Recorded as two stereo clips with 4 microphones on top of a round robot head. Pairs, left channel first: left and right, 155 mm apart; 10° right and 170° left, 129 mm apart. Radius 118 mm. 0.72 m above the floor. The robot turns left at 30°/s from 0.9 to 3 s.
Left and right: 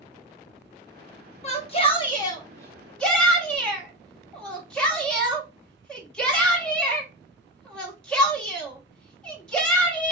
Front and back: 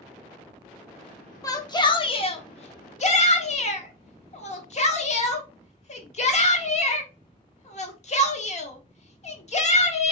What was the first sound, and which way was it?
A shout, 55° left.